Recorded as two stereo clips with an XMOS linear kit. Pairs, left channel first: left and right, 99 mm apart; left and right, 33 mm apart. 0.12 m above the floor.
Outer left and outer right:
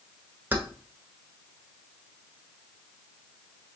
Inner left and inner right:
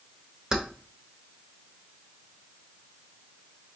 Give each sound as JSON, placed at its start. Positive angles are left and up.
{"t": 0.5, "sound": "keys jangling", "side_deg": -20, "distance_m": 0.9}